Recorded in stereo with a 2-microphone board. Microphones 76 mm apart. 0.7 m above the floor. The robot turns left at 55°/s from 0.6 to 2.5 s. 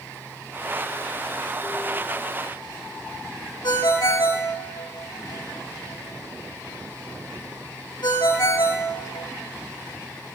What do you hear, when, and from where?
3.6 s a ringtone: 65° left (ahead or behind), 1.9 m